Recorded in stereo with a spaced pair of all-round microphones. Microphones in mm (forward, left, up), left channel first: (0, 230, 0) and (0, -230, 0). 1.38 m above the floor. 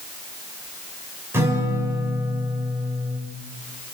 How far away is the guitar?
About 6 m.